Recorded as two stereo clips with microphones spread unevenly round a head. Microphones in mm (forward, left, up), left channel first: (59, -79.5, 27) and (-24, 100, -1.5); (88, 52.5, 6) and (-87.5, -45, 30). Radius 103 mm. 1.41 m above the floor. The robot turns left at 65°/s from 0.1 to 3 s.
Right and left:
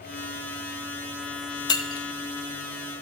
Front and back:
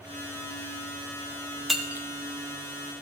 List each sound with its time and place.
1.7 s breaking glass: 75° right, 0.7 m; by 2.1 s 100° right, 0.7 m